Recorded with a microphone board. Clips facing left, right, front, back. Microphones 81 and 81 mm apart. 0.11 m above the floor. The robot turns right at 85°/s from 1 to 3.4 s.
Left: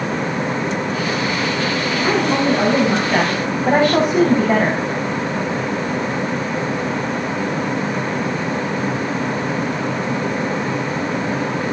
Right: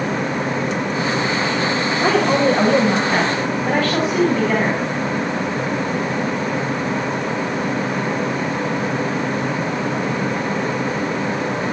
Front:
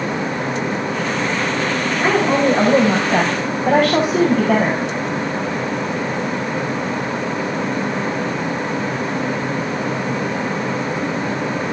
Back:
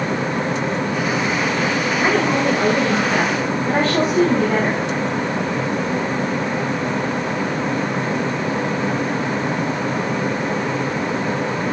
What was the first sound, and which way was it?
A woman speaking, 85° right.